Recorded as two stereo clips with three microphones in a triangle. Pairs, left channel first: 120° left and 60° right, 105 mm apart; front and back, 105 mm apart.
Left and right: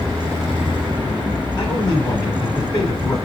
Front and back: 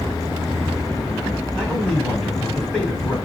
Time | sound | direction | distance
1.6 | a man speaking | 85° left | 1.6 m